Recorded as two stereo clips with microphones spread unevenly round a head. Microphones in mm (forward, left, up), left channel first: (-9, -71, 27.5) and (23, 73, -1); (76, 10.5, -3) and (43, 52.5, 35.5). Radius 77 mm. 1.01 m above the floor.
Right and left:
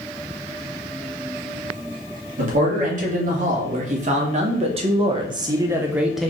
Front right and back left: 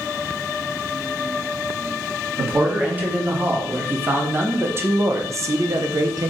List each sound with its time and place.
2.4 s a man speaking: 50° left, 2 m; by 6.3 s 130° left, 0.7 m